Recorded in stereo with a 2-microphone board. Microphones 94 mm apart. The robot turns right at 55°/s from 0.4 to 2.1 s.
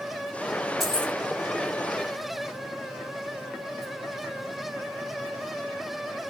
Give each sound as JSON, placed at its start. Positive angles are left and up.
{"t": 0.8, "sound": "keys jangling", "side_deg": 0, "distance_m": 1.4}